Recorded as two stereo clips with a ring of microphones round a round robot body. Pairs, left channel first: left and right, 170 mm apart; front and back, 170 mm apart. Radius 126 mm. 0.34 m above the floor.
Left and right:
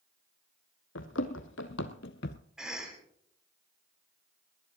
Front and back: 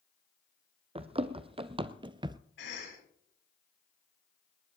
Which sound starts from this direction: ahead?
A cough, at 2.6 s.